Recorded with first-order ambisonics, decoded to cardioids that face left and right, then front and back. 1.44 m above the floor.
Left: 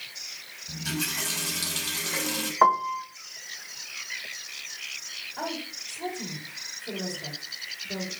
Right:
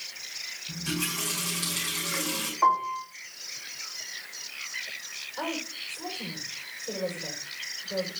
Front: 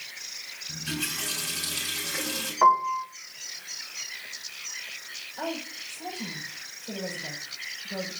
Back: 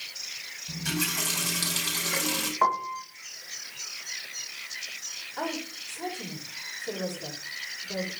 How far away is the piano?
About 2 m.